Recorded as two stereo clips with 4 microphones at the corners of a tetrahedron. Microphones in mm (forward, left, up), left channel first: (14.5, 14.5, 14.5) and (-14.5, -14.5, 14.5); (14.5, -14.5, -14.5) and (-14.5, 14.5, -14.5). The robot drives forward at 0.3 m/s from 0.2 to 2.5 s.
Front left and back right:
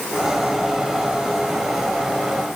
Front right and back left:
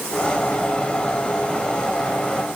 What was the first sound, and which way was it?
Only background noise.